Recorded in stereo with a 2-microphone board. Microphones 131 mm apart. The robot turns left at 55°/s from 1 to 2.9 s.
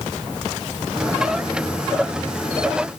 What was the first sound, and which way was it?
Only background noise.